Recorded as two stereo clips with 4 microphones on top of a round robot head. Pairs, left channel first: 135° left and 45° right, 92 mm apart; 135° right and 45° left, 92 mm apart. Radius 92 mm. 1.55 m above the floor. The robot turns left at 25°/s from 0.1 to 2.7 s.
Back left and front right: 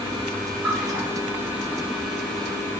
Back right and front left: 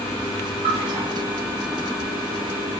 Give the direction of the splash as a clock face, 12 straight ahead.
12 o'clock.